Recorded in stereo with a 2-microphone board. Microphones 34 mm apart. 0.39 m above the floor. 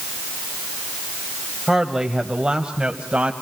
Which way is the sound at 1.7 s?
10° right (ahead or behind).